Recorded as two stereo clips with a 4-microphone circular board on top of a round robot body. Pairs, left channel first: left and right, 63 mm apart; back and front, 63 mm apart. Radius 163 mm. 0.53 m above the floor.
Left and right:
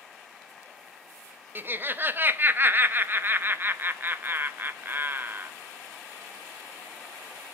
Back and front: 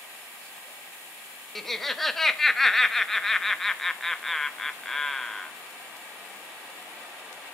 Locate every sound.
1.6 s laughter: 95° right, 1.2 m